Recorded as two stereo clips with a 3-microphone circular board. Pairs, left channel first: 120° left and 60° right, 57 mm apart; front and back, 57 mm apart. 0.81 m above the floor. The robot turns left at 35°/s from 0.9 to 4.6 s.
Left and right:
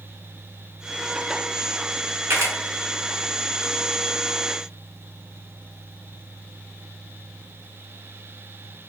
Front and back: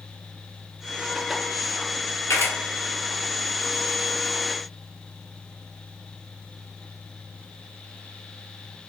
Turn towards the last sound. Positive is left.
turn(degrees=-100)